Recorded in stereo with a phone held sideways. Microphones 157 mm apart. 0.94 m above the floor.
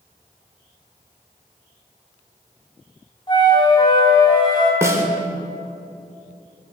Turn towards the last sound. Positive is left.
turn(degrees=-20)  # may be behind; listen again after turning